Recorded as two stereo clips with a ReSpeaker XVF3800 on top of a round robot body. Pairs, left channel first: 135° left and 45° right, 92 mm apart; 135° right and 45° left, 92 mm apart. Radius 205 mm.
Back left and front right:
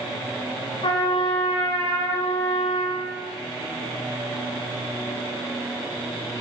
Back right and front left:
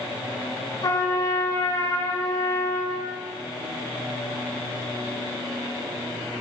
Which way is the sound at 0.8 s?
170° left.